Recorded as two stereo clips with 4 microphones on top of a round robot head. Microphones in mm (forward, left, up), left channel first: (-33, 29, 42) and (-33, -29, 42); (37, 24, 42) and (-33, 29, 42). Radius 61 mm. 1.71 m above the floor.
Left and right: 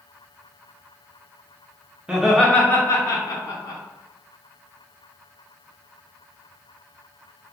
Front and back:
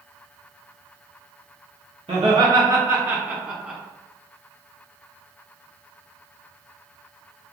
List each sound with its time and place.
2.1 s laughter: 165° right, 0.6 m; by 3.8 s 100° left, 1.1 m